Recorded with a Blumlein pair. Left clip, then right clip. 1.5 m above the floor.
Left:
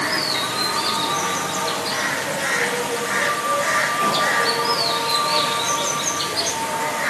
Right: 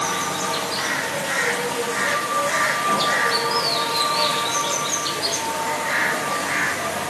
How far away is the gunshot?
No gunshot in this recording.